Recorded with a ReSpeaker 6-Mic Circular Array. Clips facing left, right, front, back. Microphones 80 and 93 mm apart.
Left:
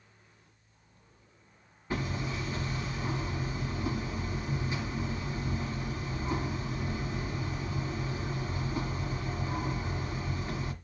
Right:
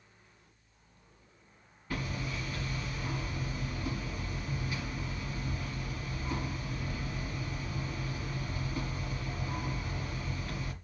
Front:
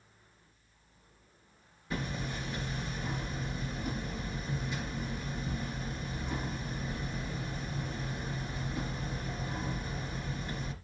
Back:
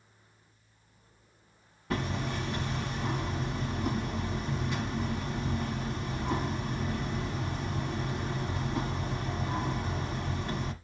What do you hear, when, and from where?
1.9 s hammering: 155° left, 1.2 m